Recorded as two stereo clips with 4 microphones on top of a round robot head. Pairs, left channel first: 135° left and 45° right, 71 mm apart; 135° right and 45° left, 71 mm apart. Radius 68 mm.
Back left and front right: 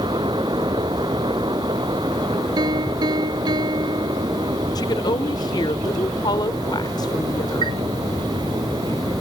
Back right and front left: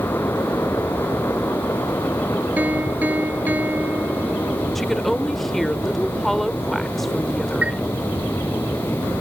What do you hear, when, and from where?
2.6 s a piano: 20° right
4.8 s a woman speaking: 140° left
7.6 s a chime: 25° right